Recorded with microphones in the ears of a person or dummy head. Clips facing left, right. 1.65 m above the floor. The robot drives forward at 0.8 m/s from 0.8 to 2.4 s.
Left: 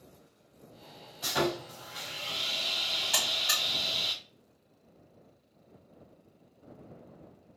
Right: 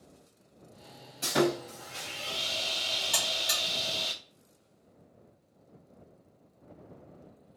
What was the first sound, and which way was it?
Sawing, 40° right (ahead or behind).